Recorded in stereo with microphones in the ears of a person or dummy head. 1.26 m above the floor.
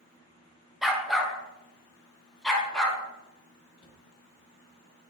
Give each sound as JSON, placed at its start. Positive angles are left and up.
{"t": 0.8, "sound": "a dog barking", "side_deg": -5, "distance_m": 1.7}
{"t": 3.8, "sound": "a cupboard door", "side_deg": 30, "distance_m": 2.0}